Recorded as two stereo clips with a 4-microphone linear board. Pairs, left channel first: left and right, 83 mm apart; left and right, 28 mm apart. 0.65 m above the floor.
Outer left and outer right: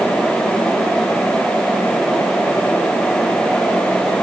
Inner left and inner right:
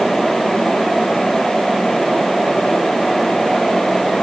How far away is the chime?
No chime in this recording.